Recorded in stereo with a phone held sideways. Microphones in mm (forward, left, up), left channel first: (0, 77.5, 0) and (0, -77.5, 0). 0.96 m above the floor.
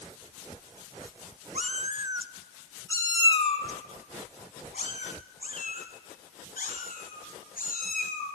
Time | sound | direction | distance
1.6 | a cat meowing | 50° right (ahead or behind) | 1.0 m